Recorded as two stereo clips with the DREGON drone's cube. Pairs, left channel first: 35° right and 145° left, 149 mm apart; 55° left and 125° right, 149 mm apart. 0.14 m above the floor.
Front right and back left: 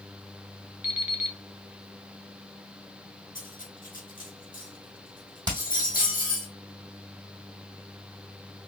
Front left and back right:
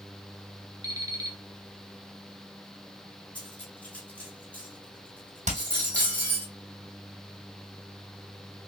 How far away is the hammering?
About 1.7 m.